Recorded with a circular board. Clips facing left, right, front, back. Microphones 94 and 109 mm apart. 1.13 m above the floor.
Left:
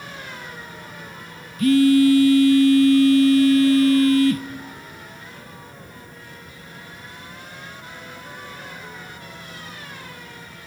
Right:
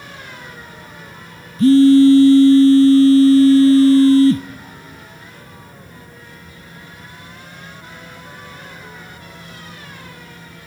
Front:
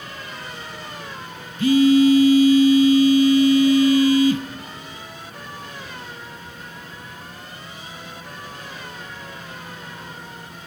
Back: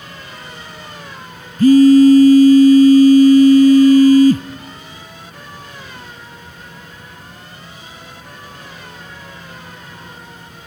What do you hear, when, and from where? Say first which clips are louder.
1.6 s a phone buzzing: right 6 dB, back 7 dB; 140° right, 0.7 m